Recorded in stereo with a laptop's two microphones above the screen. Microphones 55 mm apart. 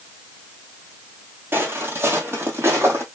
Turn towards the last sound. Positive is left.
turn(degrees=-45)  # may be behind; listen again after turning